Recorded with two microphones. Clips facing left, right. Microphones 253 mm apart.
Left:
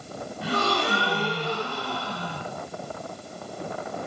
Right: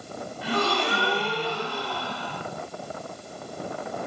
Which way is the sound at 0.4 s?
45° left (ahead or behind).